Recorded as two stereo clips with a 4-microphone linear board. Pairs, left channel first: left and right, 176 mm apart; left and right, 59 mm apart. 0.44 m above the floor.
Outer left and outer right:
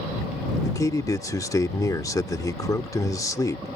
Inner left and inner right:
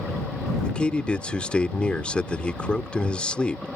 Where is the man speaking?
20° left (ahead or behind).